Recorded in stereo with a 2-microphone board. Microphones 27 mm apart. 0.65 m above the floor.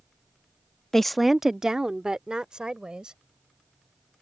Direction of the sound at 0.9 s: 15° left (ahead or behind).